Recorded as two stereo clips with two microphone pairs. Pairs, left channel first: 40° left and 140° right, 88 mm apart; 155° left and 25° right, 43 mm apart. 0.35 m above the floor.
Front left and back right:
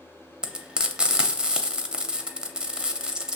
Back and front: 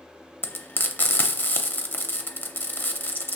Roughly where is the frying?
Behind left.